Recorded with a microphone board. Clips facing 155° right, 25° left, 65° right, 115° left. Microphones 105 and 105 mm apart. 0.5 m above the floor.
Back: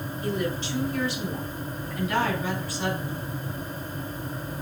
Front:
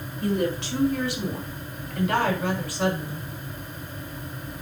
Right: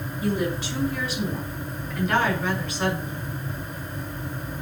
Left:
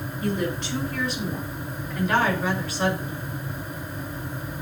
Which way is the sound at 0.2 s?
15° left.